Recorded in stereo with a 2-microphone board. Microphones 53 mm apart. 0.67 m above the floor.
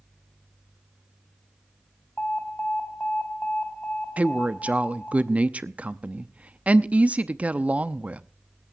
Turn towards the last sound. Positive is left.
turn(degrees=-25)  # may be behind; listen again after turning